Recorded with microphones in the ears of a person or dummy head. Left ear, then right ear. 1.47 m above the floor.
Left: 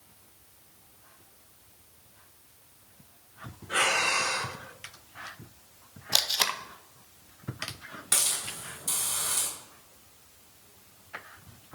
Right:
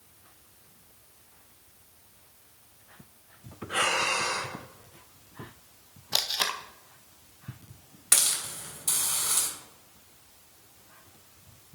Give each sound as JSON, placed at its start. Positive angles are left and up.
{"t": 3.7, "sound": "breathing", "side_deg": 5, "distance_m": 2.0}
{"t": 6.1, "sound": "tape being pulled", "side_deg": 5, "distance_m": 0.6}
{"t": 8.1, "sound": "a hiss", "side_deg": -20, "distance_m": 3.0}